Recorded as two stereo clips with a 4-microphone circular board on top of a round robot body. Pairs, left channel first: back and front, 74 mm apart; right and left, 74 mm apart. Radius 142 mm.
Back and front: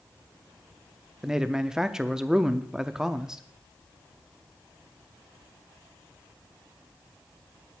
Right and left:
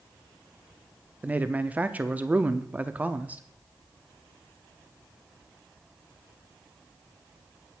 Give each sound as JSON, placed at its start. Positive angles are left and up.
{"t": 1.2, "sound": "a man speaking", "azimuth_deg": 70, "distance_m": 0.9}